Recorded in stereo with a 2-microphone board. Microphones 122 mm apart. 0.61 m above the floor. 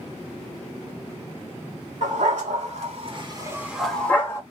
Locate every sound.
2.0 s a dog barking: 80° right, 1.1 m; by 4.4 s 25° left (ahead or behind), 0.8 m